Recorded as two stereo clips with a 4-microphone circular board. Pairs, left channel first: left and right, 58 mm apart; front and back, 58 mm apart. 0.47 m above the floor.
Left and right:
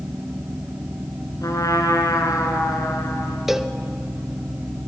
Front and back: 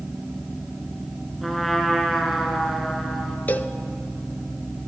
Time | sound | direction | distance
1.4 | a trumpet | 90° left | 2.5 m
3.5 | a cowbell | 15° right | 0.7 m